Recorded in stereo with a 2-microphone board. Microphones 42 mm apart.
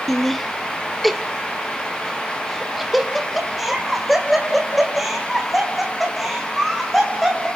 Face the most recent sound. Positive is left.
turn(degrees=-5)  # may be behind; listen again after turning